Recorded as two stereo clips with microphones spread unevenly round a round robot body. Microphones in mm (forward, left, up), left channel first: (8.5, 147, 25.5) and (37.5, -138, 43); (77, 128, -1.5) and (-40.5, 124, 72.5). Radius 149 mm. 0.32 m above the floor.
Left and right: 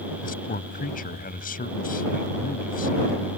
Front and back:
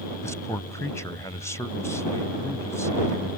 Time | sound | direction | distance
0.2 | a man speaking | 40° left | ?